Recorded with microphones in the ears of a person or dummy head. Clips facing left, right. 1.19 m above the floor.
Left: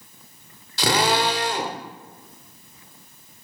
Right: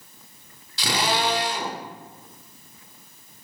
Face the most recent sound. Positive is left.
turn(degrees=45)  # may be behind; listen again after turning